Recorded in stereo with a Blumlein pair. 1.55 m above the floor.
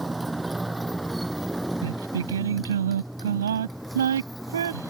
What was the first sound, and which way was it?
A motorcycle, 10° right.